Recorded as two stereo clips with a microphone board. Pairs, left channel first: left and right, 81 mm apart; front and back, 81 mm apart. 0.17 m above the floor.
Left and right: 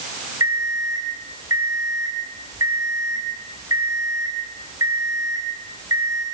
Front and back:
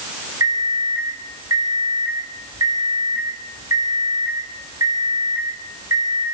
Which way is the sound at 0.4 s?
135° right.